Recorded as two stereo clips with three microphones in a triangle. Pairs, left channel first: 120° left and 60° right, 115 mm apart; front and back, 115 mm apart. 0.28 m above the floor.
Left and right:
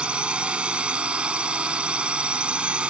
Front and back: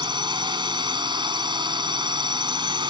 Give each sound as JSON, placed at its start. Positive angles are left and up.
{"t": 0.0, "sound": "a drone", "azimuth_deg": -140}